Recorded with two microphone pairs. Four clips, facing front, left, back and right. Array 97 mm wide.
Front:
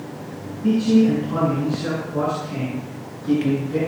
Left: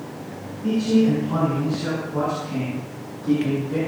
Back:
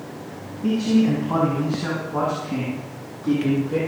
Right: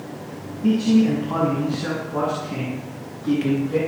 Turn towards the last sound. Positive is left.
turn(degrees=-165)